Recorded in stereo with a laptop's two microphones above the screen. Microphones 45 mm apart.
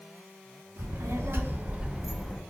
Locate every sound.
0.8 s a child speaking: 75° right (ahead or behind), 0.8 m; by 2.4 s 15° left (ahead or behind), 0.5 m